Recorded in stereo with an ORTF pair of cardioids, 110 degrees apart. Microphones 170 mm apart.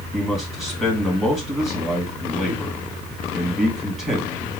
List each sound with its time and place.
0.1 s a man speaking: straight ahead, 1.8 m